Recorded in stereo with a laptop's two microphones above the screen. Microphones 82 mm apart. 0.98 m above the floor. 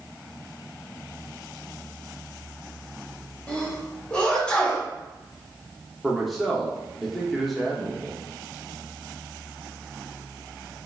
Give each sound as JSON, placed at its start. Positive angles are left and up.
{"t": 3.5, "sound": "a sneeze", "side_deg": 15, "distance_m": 1.1}
{"t": 6.0, "sound": "a man speaking", "side_deg": 0, "distance_m": 0.8}